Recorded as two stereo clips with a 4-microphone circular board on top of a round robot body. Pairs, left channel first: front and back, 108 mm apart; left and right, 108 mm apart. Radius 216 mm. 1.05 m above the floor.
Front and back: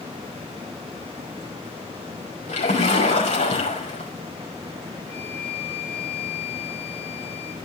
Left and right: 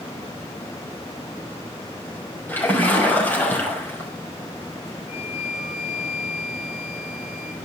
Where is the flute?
70° left, 7 m.